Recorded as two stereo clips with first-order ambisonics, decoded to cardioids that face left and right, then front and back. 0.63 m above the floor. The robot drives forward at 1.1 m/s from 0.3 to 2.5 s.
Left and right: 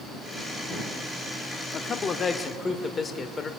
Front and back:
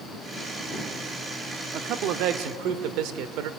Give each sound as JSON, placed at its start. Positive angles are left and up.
{"t": 1.7, "sound": "a man speaking", "azimuth_deg": 140, "distance_m": 1.0}